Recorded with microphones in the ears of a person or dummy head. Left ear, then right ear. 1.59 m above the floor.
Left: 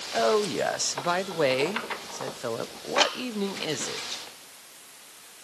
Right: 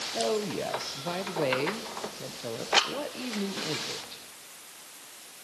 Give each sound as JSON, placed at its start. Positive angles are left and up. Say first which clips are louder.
{"t": 0.1, "sound": "a woman speaking", "louder": "left 7 dB", "side_deg": 50, "distance_m": 1.1}